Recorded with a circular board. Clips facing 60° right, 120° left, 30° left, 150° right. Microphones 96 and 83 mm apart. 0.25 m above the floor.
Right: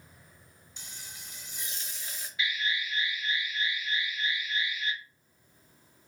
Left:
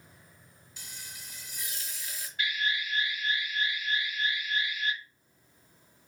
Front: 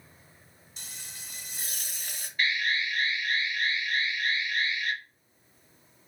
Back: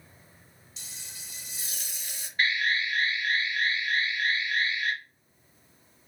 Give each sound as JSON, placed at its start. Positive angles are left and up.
{"t": 0.8, "sound": "frying", "azimuth_deg": 0, "distance_m": 1.4}
{"t": 2.4, "sound": "an alarm", "azimuth_deg": 165, "distance_m": 3.0}